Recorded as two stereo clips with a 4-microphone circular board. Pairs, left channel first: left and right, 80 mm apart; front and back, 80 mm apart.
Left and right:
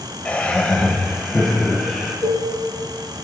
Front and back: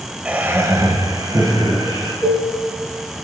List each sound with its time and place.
0.2 s laughter: 135° left, 1.4 m; by 2.1 s 170° left, 3.5 m
2.2 s dishes clattering: 115° right, 6 m